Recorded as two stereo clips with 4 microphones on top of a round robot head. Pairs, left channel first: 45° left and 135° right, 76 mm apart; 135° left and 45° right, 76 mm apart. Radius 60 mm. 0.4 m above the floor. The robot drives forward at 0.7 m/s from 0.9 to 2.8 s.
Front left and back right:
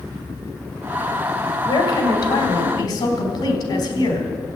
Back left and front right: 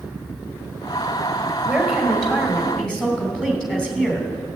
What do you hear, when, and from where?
1.6 s a woman speaking: 45° left, 3.5 m; by 4.3 s 55° left, 3 m